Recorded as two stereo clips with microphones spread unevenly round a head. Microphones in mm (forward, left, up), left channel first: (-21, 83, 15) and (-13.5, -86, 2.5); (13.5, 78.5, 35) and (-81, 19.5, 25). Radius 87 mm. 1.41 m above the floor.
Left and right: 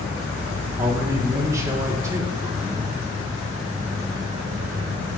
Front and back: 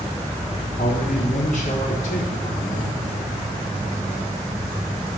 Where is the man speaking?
10° right, 1.4 m.